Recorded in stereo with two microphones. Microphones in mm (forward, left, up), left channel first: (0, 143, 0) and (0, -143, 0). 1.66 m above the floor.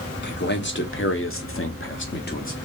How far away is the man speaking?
About 1.0 m.